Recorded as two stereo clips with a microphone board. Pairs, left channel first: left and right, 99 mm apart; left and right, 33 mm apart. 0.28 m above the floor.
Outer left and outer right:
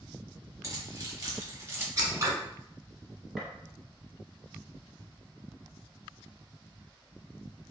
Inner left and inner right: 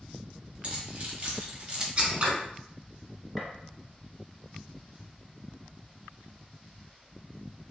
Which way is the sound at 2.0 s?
40° right (ahead or behind).